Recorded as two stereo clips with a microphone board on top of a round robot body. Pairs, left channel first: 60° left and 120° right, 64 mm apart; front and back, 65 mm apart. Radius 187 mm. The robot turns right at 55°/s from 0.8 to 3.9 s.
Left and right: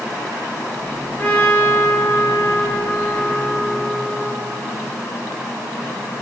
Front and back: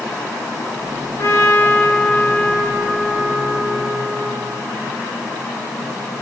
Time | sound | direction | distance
1.2 | a trumpet | straight ahead | 1.7 m